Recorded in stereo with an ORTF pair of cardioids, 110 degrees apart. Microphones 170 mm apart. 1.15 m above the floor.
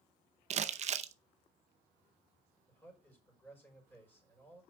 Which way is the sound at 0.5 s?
45° right.